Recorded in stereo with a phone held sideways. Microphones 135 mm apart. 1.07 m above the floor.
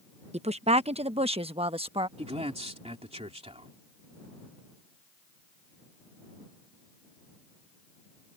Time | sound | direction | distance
0.3 | a woman speaking | 50° right (ahead or behind) | ?
2.2 | a man speaking | 50° right (ahead or behind) | ?